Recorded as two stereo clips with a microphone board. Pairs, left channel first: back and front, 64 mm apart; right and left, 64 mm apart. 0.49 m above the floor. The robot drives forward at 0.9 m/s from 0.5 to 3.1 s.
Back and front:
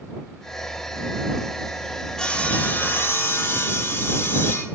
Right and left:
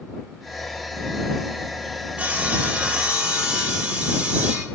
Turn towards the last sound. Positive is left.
turn(degrees=155)